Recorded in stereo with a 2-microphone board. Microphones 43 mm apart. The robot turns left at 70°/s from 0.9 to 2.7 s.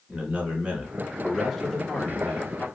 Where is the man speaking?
135° right, 1.9 m; by 2.7 s 100° left, 1.9 m.